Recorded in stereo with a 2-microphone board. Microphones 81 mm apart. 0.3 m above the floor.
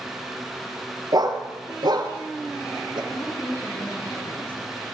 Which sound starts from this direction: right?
A dog barking, at 1.1 s.